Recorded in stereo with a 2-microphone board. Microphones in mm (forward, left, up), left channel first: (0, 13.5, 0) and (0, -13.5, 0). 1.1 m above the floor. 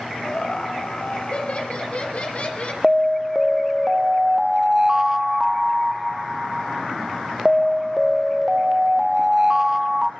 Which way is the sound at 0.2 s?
45° left (ahead or behind).